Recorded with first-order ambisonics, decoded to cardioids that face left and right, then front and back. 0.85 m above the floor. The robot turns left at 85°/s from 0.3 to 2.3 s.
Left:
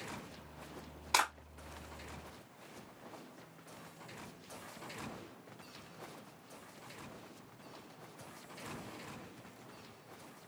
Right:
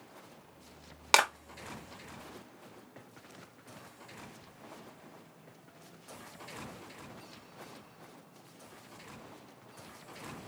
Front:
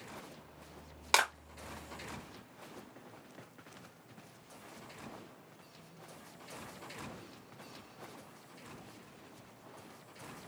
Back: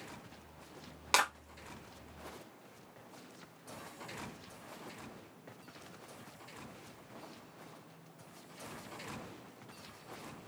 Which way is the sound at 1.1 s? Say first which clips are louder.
Right 6 dB, front 1 dB; 85° right.